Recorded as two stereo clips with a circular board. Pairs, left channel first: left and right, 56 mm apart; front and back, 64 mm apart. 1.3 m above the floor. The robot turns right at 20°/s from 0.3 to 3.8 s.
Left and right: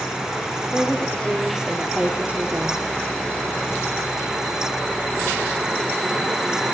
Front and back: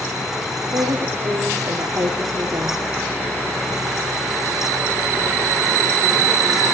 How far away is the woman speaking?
About 2.5 m.